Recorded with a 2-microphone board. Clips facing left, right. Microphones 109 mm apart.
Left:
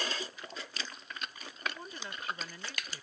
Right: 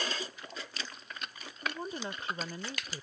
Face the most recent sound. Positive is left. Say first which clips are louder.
# right 5 dB
turn(degrees=-30)  # may be behind; listen again after turning